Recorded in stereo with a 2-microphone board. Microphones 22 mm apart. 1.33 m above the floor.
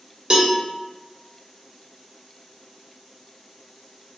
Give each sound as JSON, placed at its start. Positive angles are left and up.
{"t": 0.3, "sound": "a cowbell", "side_deg": -35, "distance_m": 0.7}